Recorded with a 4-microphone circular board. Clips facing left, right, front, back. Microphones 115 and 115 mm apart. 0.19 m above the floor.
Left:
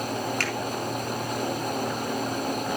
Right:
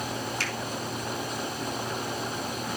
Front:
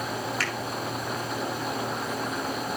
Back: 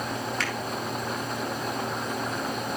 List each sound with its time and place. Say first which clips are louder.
0.4 s a finger snap: left 4 dB, even; 85° left, 3 m